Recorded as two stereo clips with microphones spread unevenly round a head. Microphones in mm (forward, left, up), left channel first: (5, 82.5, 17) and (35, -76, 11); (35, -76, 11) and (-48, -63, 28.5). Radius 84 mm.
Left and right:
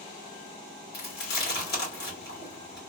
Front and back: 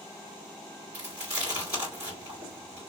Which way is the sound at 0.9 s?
135° left.